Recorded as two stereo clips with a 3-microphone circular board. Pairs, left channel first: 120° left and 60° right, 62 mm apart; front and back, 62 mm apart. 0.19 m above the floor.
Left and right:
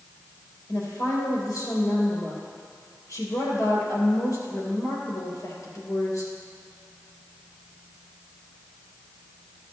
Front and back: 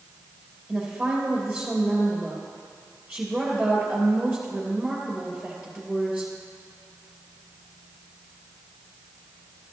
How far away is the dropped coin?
No dropped coin in this recording.